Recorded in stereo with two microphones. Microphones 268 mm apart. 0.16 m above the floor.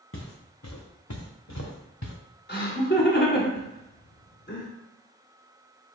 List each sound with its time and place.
0.1 s footsteps: 50° left (ahead or behind), 1.1 m; by 2.1 s 75° left (ahead or behind), 1.5 m
2.5 s laughter: 40° left (ahead or behind), 1.3 m